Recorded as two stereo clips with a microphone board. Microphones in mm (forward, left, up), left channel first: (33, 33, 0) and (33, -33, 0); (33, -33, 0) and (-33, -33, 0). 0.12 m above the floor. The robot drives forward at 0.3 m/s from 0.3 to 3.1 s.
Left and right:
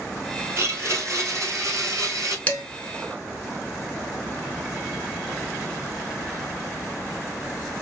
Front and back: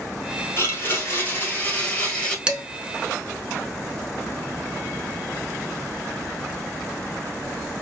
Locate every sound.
0.6 s a blender: 45° right, 1.3 m; by 2.4 s 70° right, 1.1 m
2.5 s dishes clattering: 125° left, 0.8 m; by 2.6 s 130° left, 0.8 m